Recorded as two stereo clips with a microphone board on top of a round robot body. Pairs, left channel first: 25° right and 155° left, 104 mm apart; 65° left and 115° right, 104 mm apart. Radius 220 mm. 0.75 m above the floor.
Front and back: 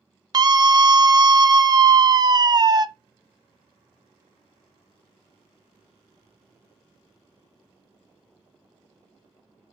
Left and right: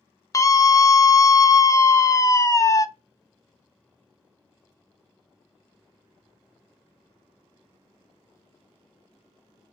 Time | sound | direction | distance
0.3 | a scream | 120° left | 0.7 m